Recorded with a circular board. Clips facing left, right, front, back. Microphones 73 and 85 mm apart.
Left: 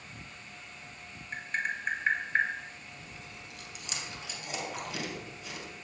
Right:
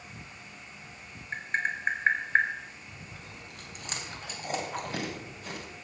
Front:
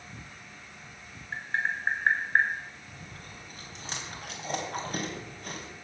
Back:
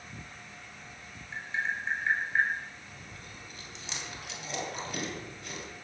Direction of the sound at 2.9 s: 45° right.